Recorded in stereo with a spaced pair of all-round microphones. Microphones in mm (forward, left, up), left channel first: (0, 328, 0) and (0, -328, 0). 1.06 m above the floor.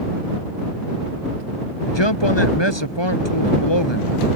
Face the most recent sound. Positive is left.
turn(degrees=40)  # may be behind; listen again after turning